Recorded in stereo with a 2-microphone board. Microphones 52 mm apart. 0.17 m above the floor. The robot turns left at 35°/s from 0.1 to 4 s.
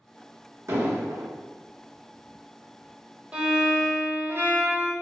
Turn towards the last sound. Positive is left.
turn(degrees=-45)  # may be behind; listen again after turning